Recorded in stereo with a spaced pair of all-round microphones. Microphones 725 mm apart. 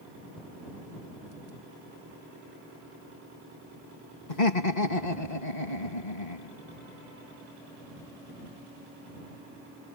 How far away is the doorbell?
No doorbell in this recording.